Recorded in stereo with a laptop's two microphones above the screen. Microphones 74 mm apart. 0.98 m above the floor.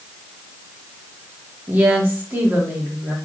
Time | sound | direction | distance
1.7 | a woman speaking | 25° right (ahead or behind) | 1.7 m